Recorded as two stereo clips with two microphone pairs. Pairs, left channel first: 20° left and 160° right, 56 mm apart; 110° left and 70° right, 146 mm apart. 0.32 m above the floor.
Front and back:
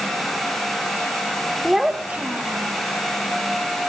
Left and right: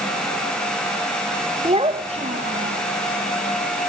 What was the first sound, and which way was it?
A child speaking, 70° right.